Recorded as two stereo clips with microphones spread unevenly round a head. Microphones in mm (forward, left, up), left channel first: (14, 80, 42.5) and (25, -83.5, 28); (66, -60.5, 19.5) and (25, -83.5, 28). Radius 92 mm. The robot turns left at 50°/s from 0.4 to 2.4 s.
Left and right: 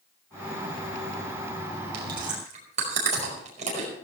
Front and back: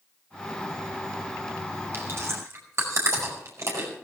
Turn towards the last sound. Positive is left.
turn(degrees=-140)